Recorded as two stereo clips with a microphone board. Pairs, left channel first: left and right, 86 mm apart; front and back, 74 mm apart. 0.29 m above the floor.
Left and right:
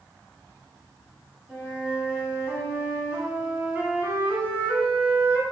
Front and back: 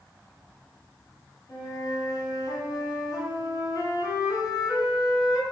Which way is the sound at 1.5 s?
20° right.